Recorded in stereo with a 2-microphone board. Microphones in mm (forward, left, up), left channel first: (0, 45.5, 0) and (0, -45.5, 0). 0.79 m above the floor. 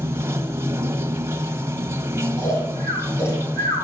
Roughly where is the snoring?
Left.